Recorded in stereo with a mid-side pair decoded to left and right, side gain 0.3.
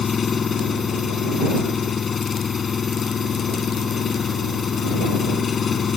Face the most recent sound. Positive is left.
turn(degrees=65)